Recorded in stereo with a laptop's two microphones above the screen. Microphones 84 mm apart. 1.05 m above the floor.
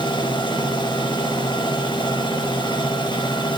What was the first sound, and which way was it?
A machine running, 65° left (ahead or behind).